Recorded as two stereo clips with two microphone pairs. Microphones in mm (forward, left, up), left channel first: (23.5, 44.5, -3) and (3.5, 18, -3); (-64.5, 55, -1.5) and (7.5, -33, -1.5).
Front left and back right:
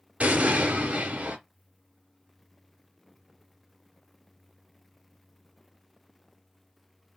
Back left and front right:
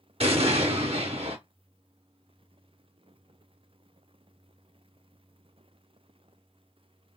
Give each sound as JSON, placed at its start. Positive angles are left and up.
{"t": 0.2, "sound": "an explosion", "azimuth_deg": -80, "distance_m": 0.8}